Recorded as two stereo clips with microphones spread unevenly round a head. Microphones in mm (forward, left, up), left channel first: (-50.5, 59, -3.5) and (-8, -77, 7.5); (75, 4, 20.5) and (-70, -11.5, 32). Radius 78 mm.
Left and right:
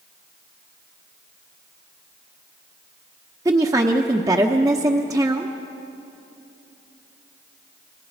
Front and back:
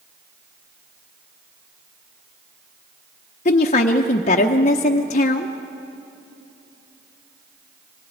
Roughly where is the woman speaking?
Ahead.